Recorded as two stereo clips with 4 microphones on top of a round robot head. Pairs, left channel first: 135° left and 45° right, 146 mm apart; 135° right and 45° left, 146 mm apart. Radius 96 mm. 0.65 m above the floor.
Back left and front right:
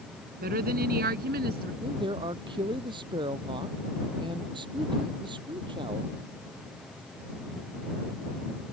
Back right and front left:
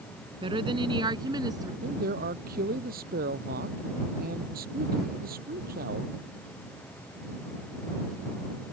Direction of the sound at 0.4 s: 15° right.